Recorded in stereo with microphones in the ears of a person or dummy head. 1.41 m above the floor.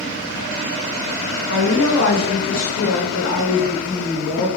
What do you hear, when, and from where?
1.5 s a woman speaking: 80° left, 1.2 m; by 4.5 s 5° left (ahead or behind), 1.6 m